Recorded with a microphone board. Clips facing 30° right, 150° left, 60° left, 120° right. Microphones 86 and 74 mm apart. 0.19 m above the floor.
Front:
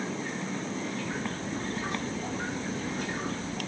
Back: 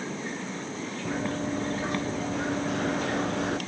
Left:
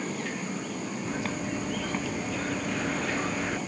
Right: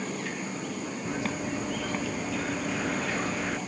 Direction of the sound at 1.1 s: 155° left.